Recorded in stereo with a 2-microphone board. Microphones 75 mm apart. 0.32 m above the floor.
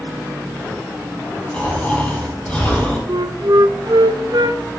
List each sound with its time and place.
1.5 s snoring: 20° left (ahead or behind), 4.5 m
3.1 s a flute: 65° right (ahead or behind), 0.7 m